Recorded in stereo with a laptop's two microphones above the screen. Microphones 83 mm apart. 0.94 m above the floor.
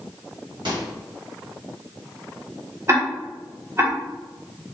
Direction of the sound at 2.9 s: 35° right (ahead or behind).